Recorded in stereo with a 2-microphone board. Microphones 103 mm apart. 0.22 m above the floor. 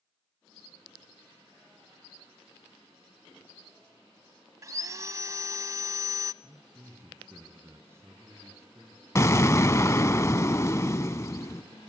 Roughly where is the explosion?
Left.